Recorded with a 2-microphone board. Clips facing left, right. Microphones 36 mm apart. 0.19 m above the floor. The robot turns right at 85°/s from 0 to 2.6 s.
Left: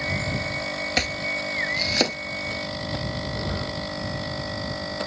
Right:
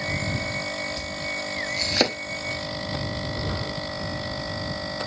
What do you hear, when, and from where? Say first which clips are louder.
1.0 s chopping: left 5 dB; 70° left (ahead or behind); by 2.2 s 20° right (ahead or behind)